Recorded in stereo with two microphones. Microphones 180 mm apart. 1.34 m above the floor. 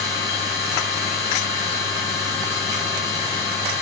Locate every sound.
0.0 s an engine running: 20° right (ahead or behind), 9.5 m